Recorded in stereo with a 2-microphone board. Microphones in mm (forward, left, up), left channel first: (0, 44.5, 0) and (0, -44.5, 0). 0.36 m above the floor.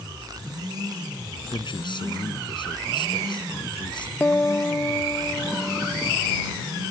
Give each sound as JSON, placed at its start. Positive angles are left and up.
{"t": 1.5, "sound": "a man speaking", "side_deg": 60}
{"t": 4.2, "sound": "a piano", "side_deg": 20}